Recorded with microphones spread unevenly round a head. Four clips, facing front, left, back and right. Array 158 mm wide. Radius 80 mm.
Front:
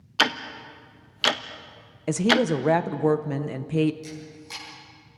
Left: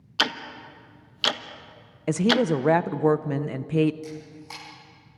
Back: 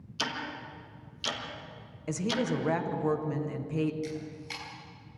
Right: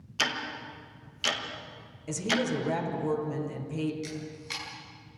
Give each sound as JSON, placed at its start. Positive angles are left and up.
{"t": 0.2, "sound": "ticking", "azimuth_deg": 25, "distance_m": 1.0}
{"t": 2.1, "sound": "a woman speaking", "azimuth_deg": 50, "distance_m": 1.0}
{"t": 4.0, "sound": "a camera shutter", "azimuth_deg": 120, "distance_m": 6.0}